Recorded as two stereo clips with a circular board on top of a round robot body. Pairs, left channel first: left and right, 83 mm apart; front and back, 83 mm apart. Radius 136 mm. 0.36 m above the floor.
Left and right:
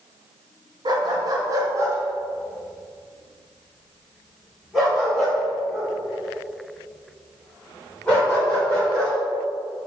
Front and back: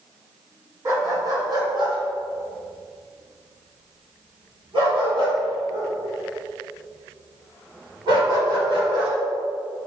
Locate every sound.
0.8 s a dog barking: 125° right, 2.5 m; by 9.1 s 170° left, 9 m